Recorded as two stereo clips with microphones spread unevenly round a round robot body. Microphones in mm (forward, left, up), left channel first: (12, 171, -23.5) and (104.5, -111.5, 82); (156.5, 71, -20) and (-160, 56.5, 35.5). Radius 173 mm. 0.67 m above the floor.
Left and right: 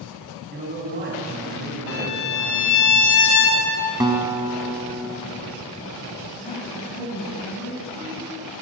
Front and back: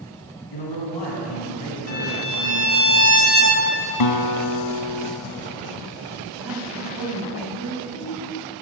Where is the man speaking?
15° right, 5.5 m; by 2.9 s 25° right, 4.5 m.